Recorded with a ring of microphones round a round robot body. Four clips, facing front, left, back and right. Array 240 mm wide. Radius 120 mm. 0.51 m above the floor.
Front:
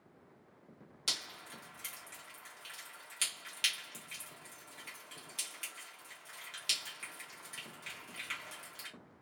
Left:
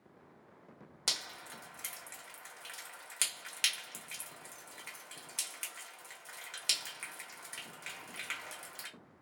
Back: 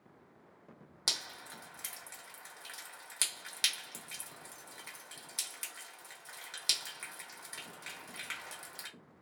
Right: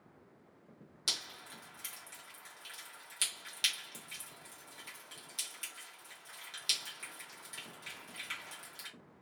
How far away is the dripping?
About 1.0 m.